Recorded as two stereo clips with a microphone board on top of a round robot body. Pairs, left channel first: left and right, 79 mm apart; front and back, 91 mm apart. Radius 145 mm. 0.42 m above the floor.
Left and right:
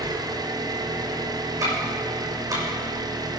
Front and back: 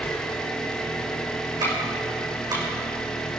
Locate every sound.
0.0 s an engine running: 80° right, 1.5 m
1.6 s ticking: 135° right, 6.5 m